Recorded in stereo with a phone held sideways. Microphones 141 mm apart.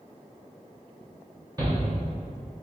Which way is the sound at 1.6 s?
25° right (ahead or behind).